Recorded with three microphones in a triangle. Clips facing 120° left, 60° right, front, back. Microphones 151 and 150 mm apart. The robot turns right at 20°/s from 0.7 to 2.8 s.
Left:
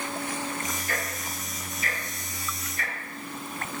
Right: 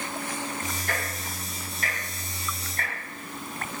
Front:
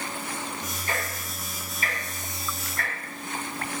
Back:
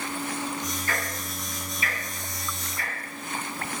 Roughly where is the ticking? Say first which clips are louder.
Even, even; ahead right.